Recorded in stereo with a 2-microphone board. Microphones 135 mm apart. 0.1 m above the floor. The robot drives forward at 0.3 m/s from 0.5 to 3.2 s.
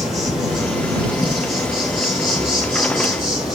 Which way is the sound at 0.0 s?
5° right (ahead or behind).